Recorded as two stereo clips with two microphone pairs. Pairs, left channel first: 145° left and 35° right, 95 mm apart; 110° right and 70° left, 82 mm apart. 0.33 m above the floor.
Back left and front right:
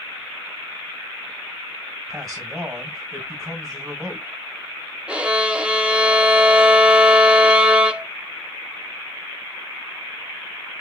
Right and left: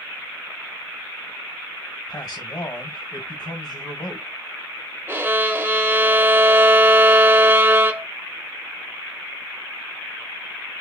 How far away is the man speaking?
About 1.3 m.